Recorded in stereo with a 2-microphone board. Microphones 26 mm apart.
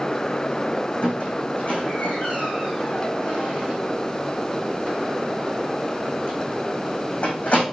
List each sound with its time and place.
1.0 s a squeak: 65° left (ahead or behind), 4 m